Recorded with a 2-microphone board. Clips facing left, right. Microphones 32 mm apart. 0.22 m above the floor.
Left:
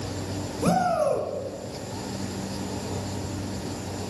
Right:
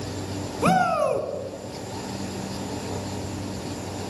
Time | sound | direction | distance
0.6 | a shout | 50° right (ahead or behind) | 2.5 m